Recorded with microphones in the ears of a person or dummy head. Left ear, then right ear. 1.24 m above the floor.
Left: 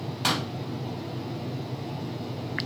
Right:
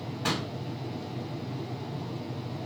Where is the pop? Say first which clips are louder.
Left 4 dB; 45° left (ahead or behind), 1.6 m.